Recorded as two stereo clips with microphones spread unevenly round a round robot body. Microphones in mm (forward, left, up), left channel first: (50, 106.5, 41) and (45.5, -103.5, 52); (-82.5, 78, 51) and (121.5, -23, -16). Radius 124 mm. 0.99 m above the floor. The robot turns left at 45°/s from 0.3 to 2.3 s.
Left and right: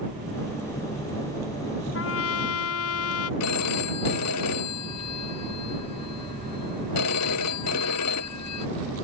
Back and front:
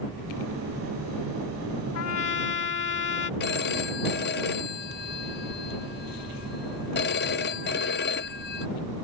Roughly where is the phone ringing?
Left.